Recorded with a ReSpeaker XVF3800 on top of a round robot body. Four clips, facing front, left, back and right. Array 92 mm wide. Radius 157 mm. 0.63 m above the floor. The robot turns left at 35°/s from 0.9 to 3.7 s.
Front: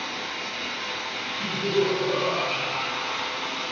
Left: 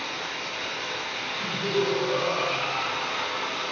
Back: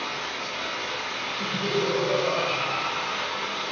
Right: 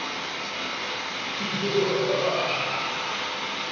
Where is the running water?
145° right, 0.9 m; by 3.7 s 120° left, 0.9 m.